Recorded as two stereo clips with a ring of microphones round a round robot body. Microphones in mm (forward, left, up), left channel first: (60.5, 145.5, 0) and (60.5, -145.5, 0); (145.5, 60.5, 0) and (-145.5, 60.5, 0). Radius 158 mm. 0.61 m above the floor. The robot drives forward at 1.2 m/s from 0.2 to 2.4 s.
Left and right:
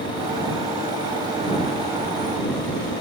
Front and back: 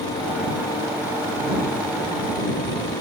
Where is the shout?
I don't hear a shout.